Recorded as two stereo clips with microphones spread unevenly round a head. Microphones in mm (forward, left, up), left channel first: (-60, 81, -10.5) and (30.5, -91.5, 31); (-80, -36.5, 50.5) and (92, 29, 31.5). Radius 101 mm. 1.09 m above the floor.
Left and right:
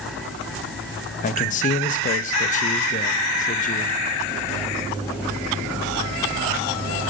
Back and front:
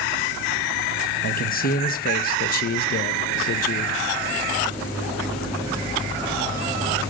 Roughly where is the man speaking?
Behind.